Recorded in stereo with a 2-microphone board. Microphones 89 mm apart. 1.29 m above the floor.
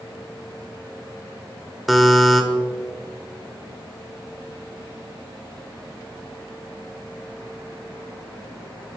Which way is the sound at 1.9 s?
Centre (ahead or behind).